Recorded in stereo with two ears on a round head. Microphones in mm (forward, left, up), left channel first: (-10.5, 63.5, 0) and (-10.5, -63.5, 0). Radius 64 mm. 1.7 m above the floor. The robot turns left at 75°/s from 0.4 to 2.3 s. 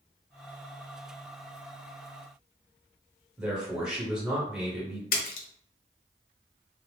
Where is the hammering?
I don't hear hammering.